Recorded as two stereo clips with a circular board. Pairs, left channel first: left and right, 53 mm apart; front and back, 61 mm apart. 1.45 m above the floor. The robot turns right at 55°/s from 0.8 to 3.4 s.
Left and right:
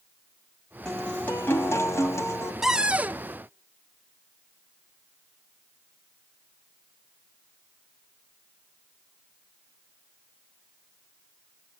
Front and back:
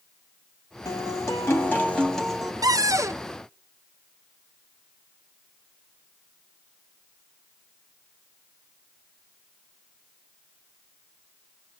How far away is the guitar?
About 3.5 m.